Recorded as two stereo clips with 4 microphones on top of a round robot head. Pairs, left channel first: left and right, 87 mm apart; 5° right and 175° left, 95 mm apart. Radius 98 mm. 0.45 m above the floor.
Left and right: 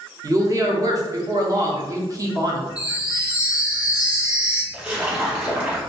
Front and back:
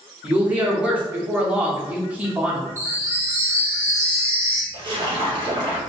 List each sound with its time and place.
0.2 s a woman speaking: 115° right, 0.9 m
2.8 s a chime: 160° right, 0.9 m
4.7 s a splash: 160° right, 1.6 m